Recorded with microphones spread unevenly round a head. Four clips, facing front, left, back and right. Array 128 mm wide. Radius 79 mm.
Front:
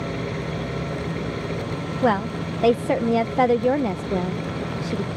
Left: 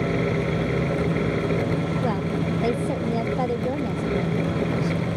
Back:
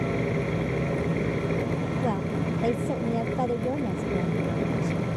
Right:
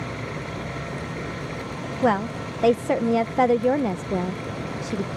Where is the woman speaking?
35° right.